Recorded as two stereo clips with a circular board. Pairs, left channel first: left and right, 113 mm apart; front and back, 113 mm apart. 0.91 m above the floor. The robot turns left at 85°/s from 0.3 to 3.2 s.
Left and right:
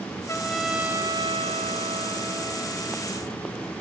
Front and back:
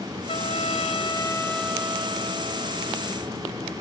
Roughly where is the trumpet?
Ahead left.